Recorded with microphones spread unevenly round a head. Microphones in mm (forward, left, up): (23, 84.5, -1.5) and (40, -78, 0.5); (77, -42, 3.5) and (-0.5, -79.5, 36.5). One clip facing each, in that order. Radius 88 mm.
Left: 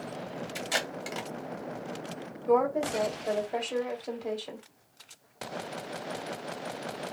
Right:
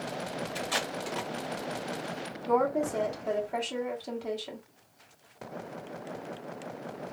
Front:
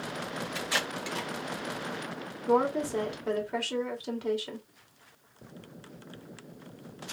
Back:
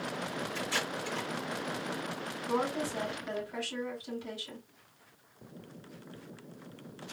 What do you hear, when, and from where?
0.6 s tape being pulled: 30° left, 1.2 m
2.5 s a woman speaking: 5° left, 2 m